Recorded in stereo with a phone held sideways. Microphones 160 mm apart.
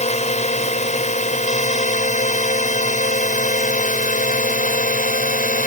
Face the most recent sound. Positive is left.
turn(degrees=60)  # may be behind; listen again after turning